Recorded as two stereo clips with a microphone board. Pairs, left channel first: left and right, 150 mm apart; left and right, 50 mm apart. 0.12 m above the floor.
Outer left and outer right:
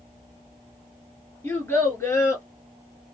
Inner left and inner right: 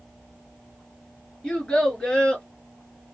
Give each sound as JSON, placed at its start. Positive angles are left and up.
{"t": 1.4, "sound": "a child speaking", "side_deg": 15, "distance_m": 1.4}